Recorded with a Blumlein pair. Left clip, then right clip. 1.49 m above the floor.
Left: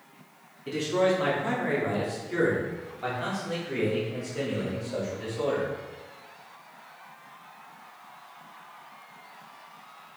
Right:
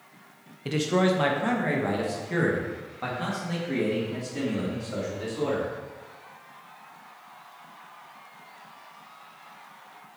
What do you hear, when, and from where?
0.7 s a man speaking: 40° right, 1.0 m; by 5.7 s 45° right, 4 m